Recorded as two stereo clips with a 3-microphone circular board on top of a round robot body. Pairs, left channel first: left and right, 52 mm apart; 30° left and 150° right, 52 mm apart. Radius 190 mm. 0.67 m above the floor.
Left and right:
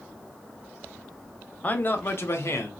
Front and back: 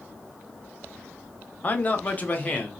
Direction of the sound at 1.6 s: 55° left.